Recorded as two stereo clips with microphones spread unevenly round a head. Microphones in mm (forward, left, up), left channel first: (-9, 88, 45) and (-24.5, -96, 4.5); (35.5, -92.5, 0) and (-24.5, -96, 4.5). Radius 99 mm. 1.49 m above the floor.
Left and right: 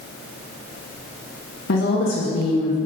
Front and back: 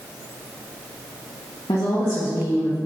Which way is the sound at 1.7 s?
50° left.